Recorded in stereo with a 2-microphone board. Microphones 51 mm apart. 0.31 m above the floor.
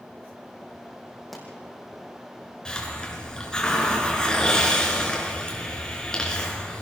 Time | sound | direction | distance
1.3 | a pop | centre (ahead or behind) | 4.5 m
2.6 | a hiss | 15° left (ahead or behind) | 3.5 m